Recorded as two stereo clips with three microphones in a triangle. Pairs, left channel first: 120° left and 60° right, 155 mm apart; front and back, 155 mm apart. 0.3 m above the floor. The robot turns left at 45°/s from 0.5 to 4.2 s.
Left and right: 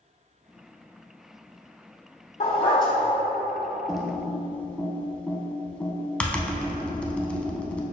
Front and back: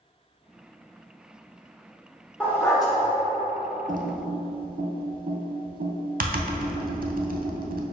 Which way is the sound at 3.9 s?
145° right.